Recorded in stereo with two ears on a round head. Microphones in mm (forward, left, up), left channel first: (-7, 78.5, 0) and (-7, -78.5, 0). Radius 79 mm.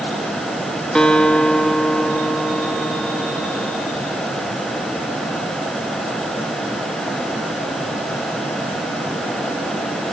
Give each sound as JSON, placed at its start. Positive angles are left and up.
{"t": 0.9, "sound": "a guitar", "side_deg": 5, "distance_m": 1.7}